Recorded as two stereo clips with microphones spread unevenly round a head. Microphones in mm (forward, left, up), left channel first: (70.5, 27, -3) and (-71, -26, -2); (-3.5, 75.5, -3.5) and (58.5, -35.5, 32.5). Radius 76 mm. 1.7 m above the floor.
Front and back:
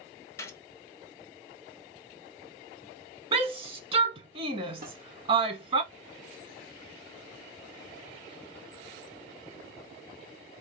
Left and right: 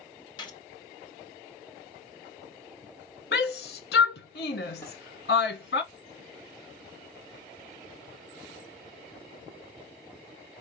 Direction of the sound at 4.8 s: 150° right.